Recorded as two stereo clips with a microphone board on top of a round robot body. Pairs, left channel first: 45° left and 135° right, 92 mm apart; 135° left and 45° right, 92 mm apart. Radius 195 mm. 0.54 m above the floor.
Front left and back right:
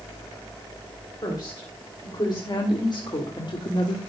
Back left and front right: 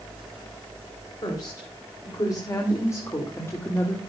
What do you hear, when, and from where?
1.2 s a woman speaking: 85° left, 3.5 m; by 4.0 s 70° left, 1.9 m